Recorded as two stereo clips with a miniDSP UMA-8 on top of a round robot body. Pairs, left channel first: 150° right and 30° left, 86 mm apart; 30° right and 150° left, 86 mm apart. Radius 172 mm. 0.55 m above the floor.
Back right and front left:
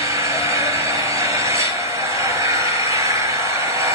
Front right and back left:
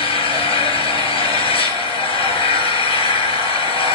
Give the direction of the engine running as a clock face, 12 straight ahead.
1 o'clock.